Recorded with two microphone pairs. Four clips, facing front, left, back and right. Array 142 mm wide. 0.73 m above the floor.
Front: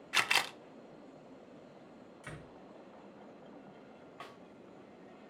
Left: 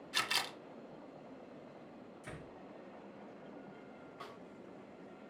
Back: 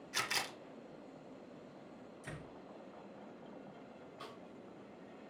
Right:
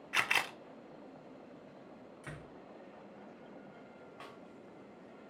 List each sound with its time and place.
0.1 s a camera shutter: 30° right, 0.5 m
2.2 s a door slam: 35° right, 5.5 m
4.2 s a snare drum: 20° right, 2.5 m